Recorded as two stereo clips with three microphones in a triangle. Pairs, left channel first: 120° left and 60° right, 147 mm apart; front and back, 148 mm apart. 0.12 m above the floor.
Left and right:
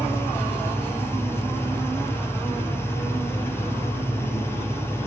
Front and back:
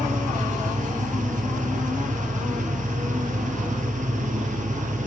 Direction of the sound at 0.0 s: 170° right.